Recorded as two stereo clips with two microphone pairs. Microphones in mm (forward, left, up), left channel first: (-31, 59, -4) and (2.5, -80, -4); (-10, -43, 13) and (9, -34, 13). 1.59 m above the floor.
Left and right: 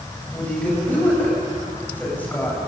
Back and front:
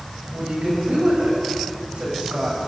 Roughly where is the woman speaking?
Ahead left.